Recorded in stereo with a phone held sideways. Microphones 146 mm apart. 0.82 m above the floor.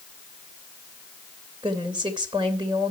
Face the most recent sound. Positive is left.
turn(degrees=-30)  # may be behind; listen again after turning